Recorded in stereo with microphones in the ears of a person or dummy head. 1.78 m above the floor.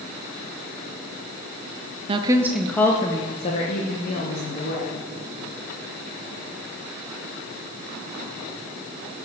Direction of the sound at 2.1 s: 30° right (ahead or behind).